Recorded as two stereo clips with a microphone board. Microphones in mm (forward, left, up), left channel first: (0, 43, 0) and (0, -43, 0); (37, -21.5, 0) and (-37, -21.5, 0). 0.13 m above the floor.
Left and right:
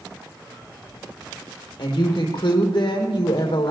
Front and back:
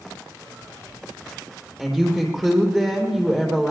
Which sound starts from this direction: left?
A woman speaking, at 1.8 s.